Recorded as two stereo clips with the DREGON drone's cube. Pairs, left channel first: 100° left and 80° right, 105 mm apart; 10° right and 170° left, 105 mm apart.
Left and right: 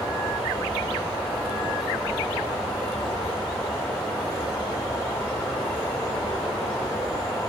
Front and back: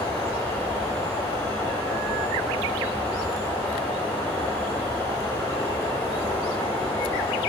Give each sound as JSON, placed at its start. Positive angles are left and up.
{"t": 0.0, "sound": "an insect", "azimuth_deg": 45, "distance_m": 2.0}